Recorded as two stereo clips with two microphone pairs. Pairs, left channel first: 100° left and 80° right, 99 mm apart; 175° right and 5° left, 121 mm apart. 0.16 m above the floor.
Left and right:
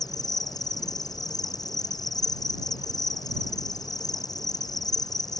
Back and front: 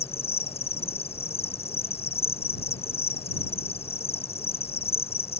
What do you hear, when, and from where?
0.0 s an insect: 150° left